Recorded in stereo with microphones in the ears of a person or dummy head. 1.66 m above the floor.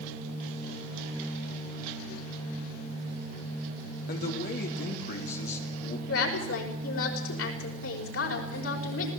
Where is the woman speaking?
80° left, 5.5 m.